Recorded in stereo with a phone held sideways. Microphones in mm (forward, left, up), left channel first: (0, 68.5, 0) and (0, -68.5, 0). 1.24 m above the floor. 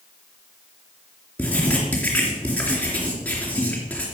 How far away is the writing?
About 4 m.